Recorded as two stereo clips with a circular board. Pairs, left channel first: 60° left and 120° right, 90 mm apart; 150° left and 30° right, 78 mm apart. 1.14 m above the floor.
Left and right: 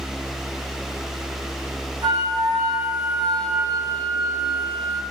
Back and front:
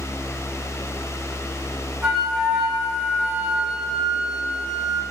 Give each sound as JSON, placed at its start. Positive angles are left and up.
{"t": 2.0, "sound": "a flute", "azimuth_deg": -110, "distance_m": 0.8}